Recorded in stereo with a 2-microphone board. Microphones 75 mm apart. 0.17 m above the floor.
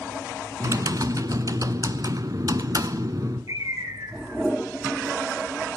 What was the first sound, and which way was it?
Typing on a keyboard, 55° right (ahead or behind).